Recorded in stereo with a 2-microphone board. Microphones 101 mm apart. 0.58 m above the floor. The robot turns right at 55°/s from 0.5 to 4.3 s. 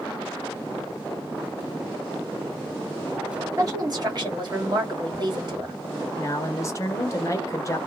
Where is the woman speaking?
130° right, 1.7 m; by 5.8 s 90° right, 1.7 m.